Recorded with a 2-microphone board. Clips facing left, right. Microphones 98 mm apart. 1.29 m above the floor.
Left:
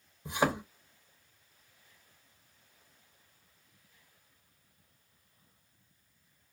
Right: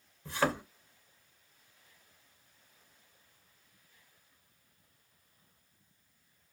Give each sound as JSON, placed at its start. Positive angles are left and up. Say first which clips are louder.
{"t": 0.2, "sound": "a thud", "louder": "left 1 dB", "side_deg": 15, "distance_m": 0.7}